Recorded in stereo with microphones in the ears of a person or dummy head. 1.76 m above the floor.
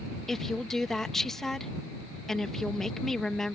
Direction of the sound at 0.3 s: Centre (ahead or behind).